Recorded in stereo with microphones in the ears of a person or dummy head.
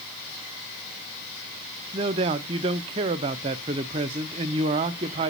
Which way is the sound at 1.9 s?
20° right (ahead or behind).